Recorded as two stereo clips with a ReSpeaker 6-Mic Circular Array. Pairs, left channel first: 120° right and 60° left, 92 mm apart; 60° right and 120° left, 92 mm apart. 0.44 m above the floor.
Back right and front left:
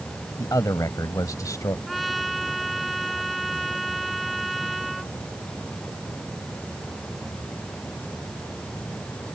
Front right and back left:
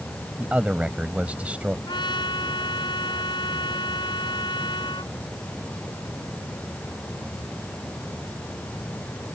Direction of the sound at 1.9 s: 30° right.